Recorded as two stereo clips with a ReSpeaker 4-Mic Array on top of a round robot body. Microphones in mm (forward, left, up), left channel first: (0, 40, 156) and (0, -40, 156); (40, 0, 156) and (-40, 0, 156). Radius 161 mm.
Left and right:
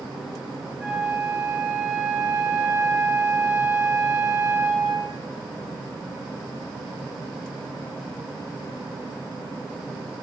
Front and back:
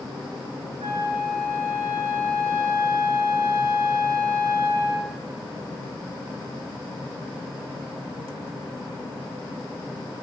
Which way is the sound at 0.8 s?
170° right.